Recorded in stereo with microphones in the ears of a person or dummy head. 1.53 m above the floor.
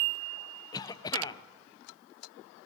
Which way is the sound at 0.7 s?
20° left (ahead or behind).